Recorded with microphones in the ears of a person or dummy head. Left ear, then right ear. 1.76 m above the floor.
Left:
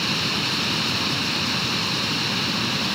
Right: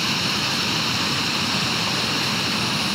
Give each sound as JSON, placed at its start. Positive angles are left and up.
{"t": 0.0, "sound": "a machine running", "side_deg": -5}